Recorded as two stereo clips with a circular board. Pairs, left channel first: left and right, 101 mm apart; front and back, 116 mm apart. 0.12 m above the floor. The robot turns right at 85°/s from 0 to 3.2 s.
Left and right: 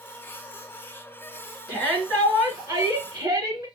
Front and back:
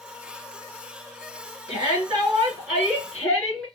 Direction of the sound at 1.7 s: 135° left.